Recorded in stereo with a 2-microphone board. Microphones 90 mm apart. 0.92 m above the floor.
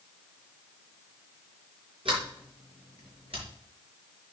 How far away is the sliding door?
About 4.5 m.